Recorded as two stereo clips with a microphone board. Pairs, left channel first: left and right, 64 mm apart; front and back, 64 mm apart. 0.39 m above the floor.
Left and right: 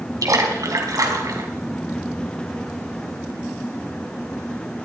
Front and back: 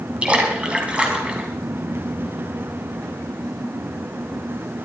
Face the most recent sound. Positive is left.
turn(degrees=-110)